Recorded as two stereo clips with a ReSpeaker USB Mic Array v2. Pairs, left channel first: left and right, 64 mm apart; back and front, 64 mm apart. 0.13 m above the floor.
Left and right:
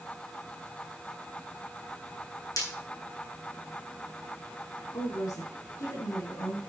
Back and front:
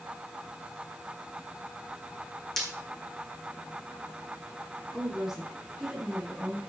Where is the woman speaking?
85° left, 5.5 m.